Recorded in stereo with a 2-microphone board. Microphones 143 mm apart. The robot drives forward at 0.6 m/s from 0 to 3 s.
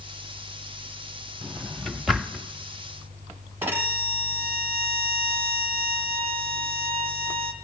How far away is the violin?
About 1.2 m.